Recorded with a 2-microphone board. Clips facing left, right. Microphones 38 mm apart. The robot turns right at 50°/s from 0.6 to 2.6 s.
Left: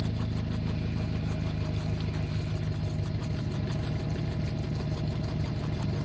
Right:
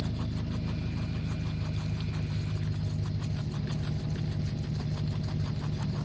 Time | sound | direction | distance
0.0 | an engine running | 40° left | 0.9 m